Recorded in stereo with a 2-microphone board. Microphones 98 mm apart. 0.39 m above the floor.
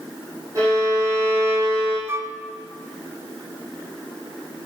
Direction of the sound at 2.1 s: 25° right (ahead or behind).